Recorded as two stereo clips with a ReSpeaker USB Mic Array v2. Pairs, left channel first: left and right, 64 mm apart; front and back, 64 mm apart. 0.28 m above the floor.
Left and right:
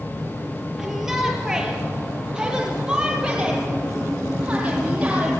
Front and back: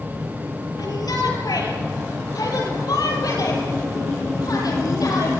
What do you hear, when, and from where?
0.8 s a shout: 5° right, 5.5 m; by 5.3 s 20° right, 8.5 m